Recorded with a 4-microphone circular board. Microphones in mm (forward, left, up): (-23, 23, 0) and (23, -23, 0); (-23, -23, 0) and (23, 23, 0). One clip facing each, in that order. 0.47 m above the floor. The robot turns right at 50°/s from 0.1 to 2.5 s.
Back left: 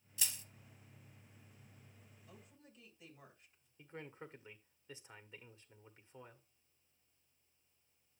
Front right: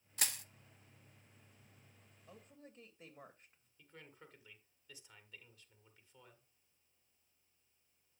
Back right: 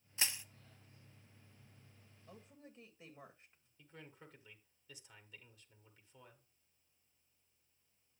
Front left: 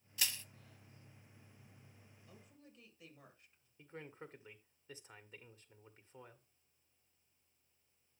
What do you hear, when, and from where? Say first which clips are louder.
0.2 s crushing: front right 4 dB, back right 1 dB; 75° right, 0.7 m; by 0.4 s 60° right, 0.7 m
2.3 s a woman speaking: front right 5 dB, back right 5 dB; 90° right, 2.5 m; by 3.7 s 80° right, 2.5 m
3.8 s a man speaking: back left 8 dB, front left 6 dB; 85° left, 1.6 m